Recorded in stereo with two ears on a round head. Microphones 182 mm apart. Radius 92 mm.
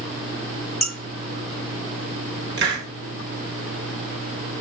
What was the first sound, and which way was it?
Dishes clattering, centre (ahead or behind).